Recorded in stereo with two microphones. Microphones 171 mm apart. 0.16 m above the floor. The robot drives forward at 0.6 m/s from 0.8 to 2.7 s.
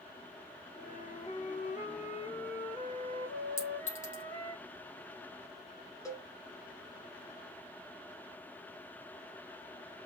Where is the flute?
55° left (ahead or behind), 1.1 m; by 4.6 s 30° left (ahead or behind), 1.9 m.